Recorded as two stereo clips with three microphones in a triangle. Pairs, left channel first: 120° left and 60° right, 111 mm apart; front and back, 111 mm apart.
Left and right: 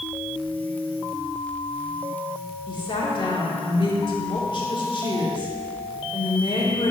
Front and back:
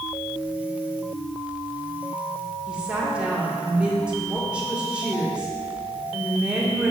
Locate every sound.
2.7 s a woman speaking: 105° left, 1.8 m